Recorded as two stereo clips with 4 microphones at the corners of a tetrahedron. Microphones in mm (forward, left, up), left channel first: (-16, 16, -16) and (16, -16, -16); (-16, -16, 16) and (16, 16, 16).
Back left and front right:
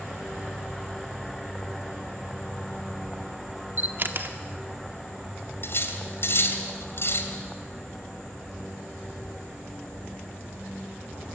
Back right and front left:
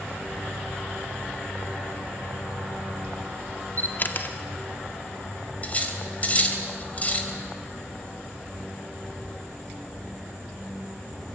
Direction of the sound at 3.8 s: 90° right.